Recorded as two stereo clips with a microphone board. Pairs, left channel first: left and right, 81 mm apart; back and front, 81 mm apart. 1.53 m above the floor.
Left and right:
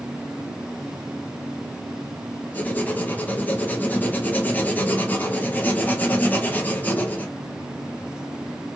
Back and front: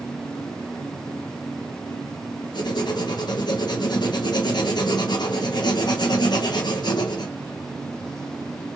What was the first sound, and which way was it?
Writing, 160° left.